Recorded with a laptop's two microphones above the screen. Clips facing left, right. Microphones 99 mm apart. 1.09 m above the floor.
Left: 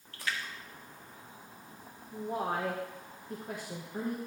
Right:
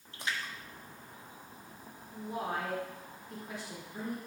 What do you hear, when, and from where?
0.1 s a splash: 20° right (ahead or behind), 1.4 m
2.1 s a woman speaking: 45° left (ahead or behind), 1.2 m